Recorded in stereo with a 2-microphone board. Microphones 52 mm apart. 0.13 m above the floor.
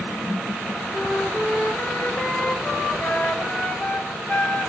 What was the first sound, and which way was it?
A flute, 30° left (ahead or behind).